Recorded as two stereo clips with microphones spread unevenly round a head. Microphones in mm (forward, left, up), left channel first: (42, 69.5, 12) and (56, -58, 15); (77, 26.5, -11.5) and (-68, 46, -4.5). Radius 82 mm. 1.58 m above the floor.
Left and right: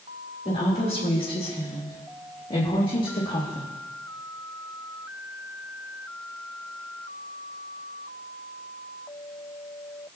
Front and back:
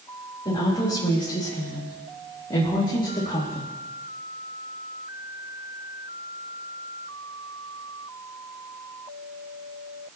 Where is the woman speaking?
55° left, 4.5 m; by 3.7 s 45° left, 2 m.